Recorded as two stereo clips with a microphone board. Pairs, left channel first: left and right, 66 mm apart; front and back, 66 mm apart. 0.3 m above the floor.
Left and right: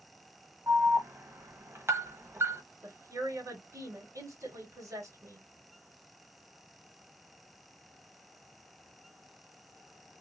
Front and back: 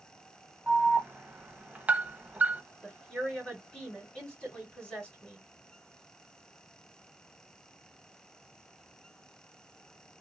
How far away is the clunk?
No clunk in this recording.